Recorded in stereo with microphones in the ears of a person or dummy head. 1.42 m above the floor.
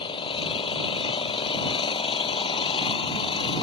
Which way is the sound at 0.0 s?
25° left (ahead or behind).